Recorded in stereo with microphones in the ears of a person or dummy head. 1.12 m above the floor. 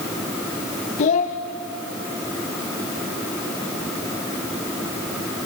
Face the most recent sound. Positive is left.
turn(degrees=40)  # may be behind; listen again after turning